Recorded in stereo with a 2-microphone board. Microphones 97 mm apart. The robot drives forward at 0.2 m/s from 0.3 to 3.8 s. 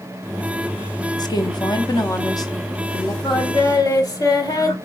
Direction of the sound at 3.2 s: 45° left (ahead or behind).